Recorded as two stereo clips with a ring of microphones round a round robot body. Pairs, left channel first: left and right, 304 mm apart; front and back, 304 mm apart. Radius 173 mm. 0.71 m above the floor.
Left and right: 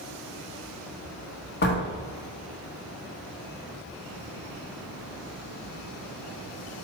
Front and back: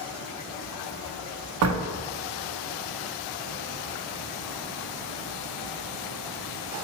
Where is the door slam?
145° left, 0.8 m.